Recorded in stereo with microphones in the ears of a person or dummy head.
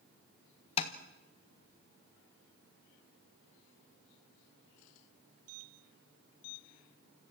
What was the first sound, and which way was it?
Tapping, 30° left (ahead or behind).